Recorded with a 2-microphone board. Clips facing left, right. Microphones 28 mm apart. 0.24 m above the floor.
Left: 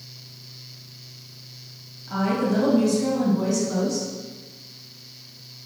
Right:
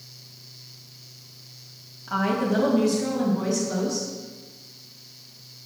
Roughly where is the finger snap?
No finger snap in this recording.